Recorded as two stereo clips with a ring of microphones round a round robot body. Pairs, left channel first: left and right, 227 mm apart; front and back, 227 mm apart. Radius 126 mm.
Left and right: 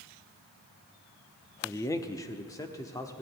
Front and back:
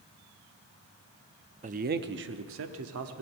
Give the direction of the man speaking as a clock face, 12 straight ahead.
7 o'clock.